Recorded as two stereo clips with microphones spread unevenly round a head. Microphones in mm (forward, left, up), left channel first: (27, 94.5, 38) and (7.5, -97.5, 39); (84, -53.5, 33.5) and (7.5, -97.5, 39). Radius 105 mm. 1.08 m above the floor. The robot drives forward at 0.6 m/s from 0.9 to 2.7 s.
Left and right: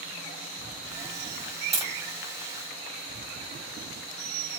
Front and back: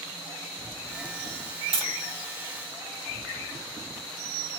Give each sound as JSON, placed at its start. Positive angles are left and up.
{"t": 1.7, "sound": "tapping", "azimuth_deg": -170, "distance_m": 1.4}